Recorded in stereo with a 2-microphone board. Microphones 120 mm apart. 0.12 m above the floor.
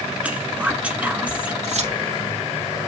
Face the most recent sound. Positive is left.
turn(degrees=-70)  # may be behind; listen again after turning